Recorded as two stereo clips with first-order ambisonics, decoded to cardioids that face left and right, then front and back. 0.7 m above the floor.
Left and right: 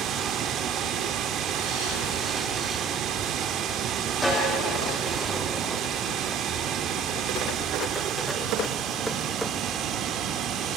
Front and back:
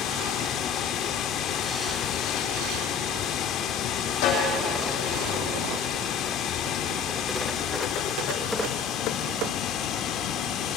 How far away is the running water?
About 1.0 m.